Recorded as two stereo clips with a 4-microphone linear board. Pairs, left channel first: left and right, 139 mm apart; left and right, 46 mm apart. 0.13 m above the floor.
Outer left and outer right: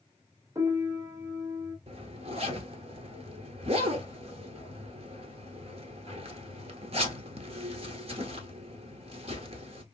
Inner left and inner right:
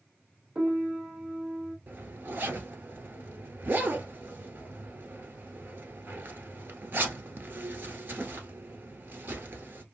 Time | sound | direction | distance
0.6 | a piano | 25° right (ahead or behind) | 1.0 m
1.9 | a zipper | 45° right (ahead or behind) | 1.0 m